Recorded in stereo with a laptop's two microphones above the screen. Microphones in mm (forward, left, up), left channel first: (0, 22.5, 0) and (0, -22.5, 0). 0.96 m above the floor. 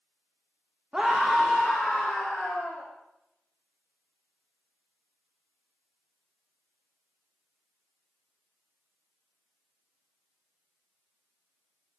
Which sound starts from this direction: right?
A scream, at 0.9 s.